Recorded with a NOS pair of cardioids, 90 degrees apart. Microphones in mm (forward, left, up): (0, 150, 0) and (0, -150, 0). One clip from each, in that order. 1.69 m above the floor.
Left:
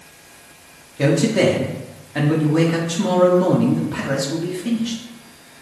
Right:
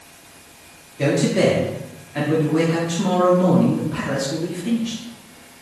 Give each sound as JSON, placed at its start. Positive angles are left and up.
{"t": 1.0, "sound": "a man speaking", "azimuth_deg": 20, "distance_m": 1.1}